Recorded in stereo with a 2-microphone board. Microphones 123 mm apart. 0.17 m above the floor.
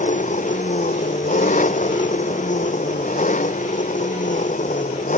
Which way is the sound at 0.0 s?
80° left.